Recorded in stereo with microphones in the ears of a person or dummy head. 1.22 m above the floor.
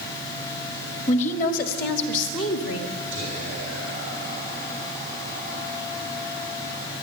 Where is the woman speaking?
35° left (ahead or behind), 1.4 m; by 2.9 s 80° left, 1.9 m.